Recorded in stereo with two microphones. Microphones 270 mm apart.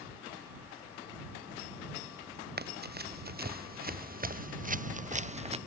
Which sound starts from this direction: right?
Running footsteps, at 2.6 s.